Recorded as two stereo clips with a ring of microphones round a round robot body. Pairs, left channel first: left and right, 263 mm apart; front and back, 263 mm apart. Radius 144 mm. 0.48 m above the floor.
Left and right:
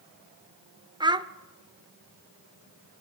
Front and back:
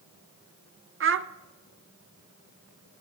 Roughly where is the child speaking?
Behind.